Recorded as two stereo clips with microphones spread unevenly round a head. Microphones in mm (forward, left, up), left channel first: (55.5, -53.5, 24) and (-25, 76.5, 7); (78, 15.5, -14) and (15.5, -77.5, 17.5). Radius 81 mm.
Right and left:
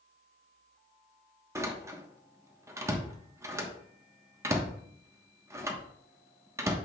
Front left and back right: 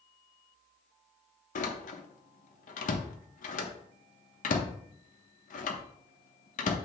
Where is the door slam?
50° left, 1.1 m.